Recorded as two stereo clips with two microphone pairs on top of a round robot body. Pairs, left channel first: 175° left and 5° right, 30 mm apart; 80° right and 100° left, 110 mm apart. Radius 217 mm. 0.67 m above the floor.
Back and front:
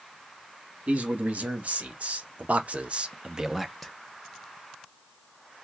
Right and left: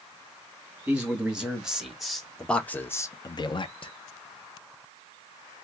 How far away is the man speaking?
About 1.6 m.